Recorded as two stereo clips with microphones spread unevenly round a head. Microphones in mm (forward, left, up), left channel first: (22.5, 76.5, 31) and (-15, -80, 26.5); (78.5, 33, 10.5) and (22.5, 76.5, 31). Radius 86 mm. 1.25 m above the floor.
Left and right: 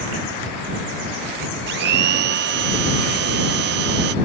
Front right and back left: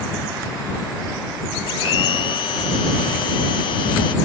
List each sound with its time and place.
1.7 s a blender: 80° right